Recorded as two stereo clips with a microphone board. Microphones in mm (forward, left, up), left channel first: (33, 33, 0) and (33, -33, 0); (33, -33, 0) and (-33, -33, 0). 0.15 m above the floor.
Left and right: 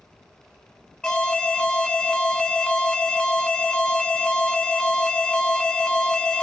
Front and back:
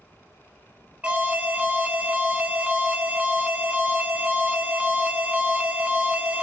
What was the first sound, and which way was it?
An alarm, 150° left.